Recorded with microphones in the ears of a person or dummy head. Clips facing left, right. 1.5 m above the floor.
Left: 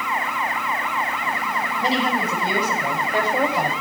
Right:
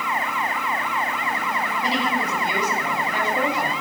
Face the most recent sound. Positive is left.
turn(degrees=40)  # may be behind; listen again after turning